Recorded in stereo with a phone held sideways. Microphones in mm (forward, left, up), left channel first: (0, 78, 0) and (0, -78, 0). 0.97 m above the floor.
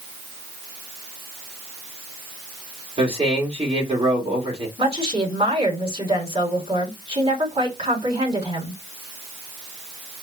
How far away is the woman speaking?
About 2.5 m.